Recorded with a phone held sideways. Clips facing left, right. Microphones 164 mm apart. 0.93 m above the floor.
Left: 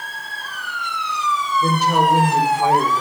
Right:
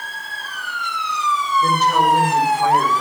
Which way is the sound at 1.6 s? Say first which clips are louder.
Even; 15° left (ahead or behind).